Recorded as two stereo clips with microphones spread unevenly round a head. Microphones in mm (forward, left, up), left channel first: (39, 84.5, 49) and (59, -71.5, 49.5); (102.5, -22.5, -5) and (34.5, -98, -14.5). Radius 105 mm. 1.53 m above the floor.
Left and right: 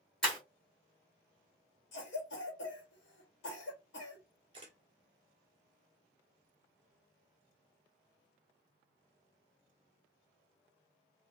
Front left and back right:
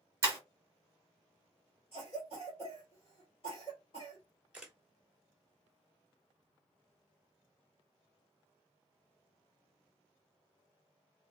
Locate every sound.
0.2 s breaking glass: 175° right, 1.3 m
1.9 s a cough: 105° left, 1.1 m
4.5 s a camera shutter: 45° right, 1.3 m